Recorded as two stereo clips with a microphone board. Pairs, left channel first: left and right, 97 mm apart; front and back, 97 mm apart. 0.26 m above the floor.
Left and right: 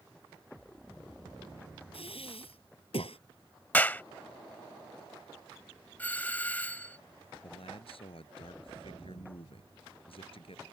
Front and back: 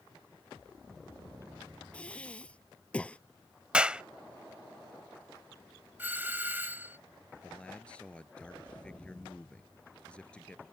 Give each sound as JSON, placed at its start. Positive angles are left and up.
{"t": 1.9, "sound": "breathing", "azimuth_deg": 80}
{"t": 3.7, "sound": "a clap", "azimuth_deg": 120}
{"t": 6.0, "sound": "a doorbell", "azimuth_deg": 140}
{"t": 7.4, "sound": "a man speaking", "azimuth_deg": 80}